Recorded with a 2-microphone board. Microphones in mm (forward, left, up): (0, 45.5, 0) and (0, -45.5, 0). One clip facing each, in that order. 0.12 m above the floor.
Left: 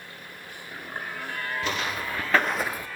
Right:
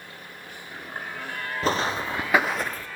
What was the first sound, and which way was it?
Footsteps, 40° right (ahead or behind).